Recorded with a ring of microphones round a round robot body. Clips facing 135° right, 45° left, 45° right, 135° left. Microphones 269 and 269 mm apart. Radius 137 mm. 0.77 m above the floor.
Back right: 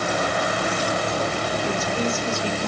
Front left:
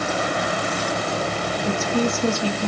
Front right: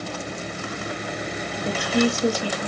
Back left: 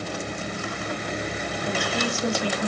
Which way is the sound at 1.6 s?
10° left.